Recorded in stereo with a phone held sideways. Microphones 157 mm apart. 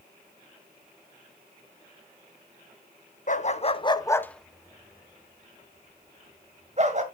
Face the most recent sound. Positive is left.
turn(degrees=-50)  # may be behind; listen again after turning